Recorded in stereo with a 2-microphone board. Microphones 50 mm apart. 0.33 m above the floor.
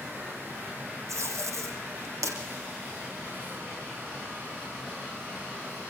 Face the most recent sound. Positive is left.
turn(degrees=-80)